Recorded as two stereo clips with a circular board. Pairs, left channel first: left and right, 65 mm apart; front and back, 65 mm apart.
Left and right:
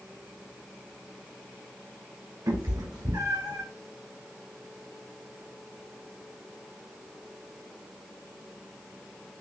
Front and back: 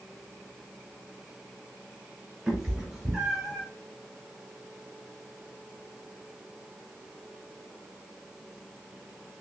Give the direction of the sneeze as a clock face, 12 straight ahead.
I don't hear a sneeze.